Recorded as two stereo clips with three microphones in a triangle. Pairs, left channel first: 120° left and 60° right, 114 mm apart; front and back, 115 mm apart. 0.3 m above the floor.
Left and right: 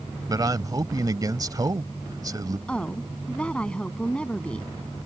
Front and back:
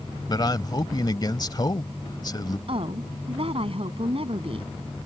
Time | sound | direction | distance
0.3 | a man speaking | 25° right | ?
2.7 | a woman speaking | 160° right | ?